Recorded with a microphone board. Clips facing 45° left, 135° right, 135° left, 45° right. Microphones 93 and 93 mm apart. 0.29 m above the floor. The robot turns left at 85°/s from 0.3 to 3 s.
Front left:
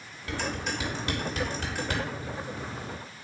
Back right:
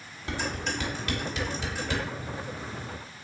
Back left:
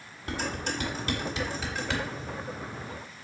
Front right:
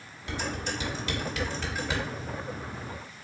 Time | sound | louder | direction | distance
0.3 | dishes clattering | even, back left 1 dB | 165° left | 1.6 m